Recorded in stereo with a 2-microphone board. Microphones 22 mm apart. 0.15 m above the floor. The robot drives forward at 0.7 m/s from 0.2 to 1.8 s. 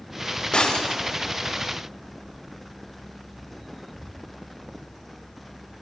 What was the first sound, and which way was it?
Breaking glass, 35° left (ahead or behind).